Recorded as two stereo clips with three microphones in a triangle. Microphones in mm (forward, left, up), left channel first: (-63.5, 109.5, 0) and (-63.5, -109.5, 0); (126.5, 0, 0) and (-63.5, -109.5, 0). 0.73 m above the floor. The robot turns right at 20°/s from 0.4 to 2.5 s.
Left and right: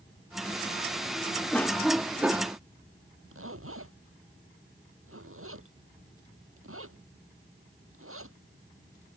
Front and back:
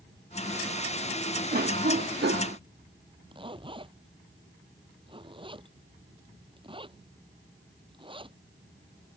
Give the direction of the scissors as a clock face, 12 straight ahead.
I don't hear scissors.